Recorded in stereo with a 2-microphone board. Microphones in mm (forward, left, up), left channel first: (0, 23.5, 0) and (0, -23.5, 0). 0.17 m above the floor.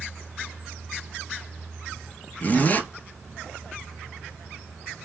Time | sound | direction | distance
2.4 | a zipper | 35° left (ahead or behind) | 0.6 m